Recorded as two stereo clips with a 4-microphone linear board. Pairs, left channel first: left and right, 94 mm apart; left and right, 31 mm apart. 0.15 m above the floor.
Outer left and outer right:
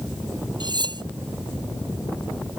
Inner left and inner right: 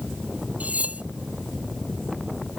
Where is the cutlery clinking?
50° right (ahead or behind).